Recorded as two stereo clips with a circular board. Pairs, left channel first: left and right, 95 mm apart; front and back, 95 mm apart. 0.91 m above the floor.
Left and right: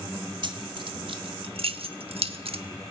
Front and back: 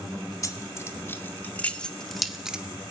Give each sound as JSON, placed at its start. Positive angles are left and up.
{"t": 0.4, "sound": "keys jangling", "azimuth_deg": -55, "distance_m": 1.8}